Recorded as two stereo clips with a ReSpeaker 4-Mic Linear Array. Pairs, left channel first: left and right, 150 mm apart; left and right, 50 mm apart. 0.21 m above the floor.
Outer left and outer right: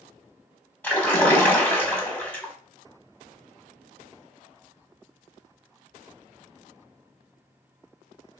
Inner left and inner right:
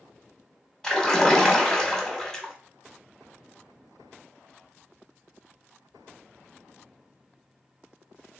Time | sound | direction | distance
0.8 | a splash | 10° left (ahead or behind) | 1.1 m